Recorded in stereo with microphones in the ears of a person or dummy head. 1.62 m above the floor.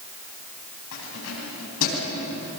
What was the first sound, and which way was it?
Keys jangling, 75° left (ahead or behind).